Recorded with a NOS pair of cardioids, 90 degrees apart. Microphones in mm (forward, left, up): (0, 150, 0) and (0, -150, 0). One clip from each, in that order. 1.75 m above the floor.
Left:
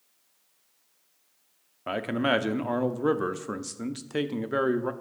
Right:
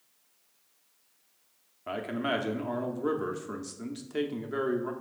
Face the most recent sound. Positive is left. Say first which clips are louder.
# left 5 dB
turn(degrees=25)